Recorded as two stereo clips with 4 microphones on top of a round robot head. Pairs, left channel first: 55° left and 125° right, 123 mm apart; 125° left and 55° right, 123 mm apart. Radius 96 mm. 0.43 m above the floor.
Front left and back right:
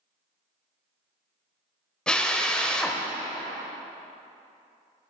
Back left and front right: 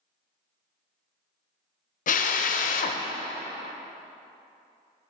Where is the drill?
135° left, 0.7 m.